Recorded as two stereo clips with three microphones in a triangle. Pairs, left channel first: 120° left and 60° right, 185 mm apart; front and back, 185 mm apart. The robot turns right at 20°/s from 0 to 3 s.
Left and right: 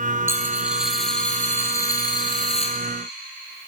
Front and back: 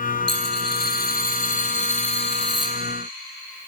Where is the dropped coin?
15° left, 1.9 m; by 2.8 s 65° left, 1.9 m.